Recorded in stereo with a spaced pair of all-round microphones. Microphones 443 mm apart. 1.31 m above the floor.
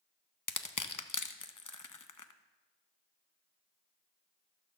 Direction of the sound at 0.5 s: 45° left (ahead or behind).